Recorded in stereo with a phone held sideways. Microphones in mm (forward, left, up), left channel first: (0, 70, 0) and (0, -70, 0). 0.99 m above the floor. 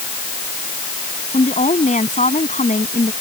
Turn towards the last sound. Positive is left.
turn(degrees=65)  # may be behind; listen again after turning